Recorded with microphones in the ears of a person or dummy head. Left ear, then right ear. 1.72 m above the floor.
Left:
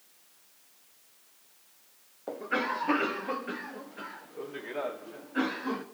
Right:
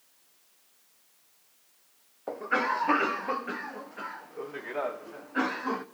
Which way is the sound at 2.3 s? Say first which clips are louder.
Right 3 dB; 30° right (ahead or behind).